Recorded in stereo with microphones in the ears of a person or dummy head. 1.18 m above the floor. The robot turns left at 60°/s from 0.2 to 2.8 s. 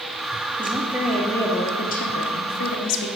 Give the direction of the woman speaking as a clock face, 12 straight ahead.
5 o'clock.